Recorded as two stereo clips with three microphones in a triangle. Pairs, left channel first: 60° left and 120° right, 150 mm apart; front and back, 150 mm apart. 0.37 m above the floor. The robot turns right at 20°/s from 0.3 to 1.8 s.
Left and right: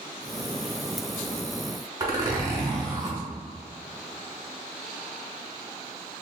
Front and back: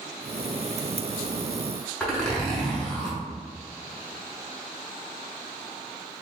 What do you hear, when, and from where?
2.0 s a zipper: 80° right, 1.2 m